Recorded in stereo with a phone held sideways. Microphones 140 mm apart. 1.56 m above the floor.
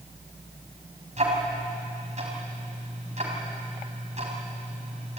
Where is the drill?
I don't hear a drill.